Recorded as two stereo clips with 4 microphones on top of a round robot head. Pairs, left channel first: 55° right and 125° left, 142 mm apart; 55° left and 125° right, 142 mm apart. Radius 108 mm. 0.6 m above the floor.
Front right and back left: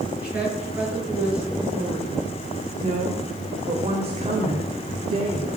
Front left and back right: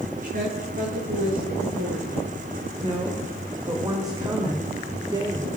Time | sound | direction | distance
0.2 | a woman speaking | 155° right | 10 m
2.8 | a woman speaking | 170° left | 2 m